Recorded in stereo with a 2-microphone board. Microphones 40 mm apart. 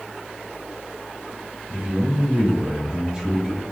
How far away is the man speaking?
About 2.5 m.